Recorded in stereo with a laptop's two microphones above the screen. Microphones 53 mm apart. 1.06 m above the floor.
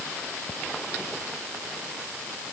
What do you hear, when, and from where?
Only background noise.